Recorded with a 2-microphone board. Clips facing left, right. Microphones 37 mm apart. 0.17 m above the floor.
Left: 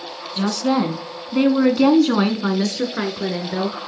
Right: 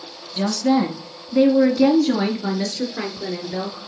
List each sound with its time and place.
0.4 s a woman speaking: 25° left (ahead or behind), 1.7 m; by 3.8 s 40° left (ahead or behind), 2.5 m